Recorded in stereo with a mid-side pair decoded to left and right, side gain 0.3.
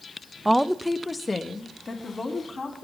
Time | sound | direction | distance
0.5 | a woman speaking | 10° right | 0.7 m